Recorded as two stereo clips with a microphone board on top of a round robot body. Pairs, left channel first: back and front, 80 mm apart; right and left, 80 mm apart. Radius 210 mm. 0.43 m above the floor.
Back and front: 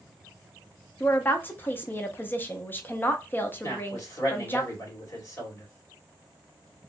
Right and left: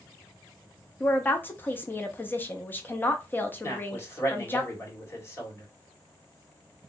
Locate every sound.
1.0 s a woman speaking: 135° right, 0.8 m
3.6 s a man speaking: 140° right, 2 m